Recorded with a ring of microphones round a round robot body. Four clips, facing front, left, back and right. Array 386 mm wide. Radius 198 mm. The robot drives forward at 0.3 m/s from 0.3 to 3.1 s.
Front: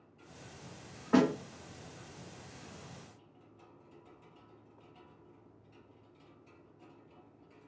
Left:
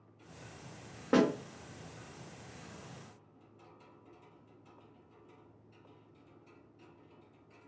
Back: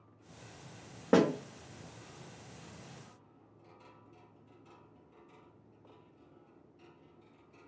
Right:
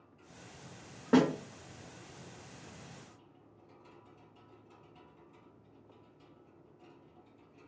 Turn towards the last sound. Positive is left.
turn(degrees=175)